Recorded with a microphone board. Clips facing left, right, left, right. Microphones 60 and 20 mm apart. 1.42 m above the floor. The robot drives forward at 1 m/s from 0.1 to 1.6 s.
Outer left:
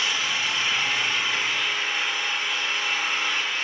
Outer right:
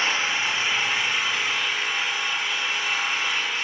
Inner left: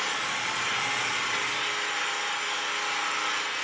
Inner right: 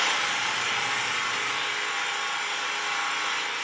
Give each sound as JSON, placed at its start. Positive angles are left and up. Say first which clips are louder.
{"t": 0.0, "sound": "an engine running", "louder": "outer right 2 dB, inner right 4 dB", "side_deg": -35, "distance_m": 0.8}